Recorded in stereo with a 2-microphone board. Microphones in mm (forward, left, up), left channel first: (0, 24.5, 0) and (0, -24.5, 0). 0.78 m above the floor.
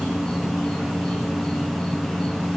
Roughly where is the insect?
Centre.